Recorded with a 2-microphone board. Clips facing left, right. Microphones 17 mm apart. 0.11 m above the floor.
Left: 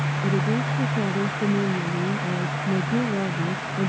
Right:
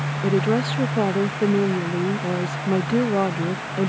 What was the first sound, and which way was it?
A woman speaking, 65° right (ahead or behind).